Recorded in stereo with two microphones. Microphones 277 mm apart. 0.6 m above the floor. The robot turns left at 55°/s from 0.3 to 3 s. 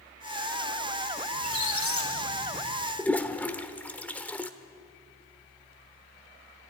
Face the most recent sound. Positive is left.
turn(degrees=5)  # may be behind; listen again after turning